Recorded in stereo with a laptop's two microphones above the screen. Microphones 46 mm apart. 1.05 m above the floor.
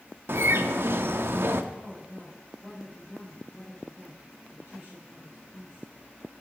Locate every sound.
0.3 s a bird: 60° right (ahead or behind), 0.7 m
1.7 s a woman speaking: 40° right (ahead or behind), 4 m